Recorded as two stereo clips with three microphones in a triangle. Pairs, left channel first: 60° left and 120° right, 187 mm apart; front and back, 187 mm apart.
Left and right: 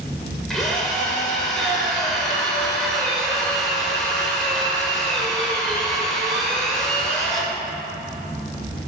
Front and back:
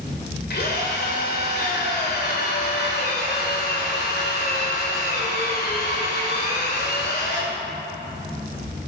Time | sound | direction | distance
0.5 | a drill | 25° right | 2 m